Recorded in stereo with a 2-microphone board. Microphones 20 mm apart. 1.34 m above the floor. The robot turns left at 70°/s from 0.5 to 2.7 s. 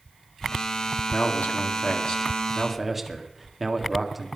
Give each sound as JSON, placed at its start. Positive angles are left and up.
{"t": 1.1, "sound": "a man speaking", "azimuth_deg": 110, "distance_m": 2.5}